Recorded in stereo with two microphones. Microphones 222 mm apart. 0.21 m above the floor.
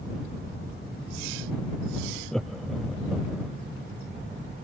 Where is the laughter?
Centre (ahead or behind); by 3.5 s 5° right (ahead or behind).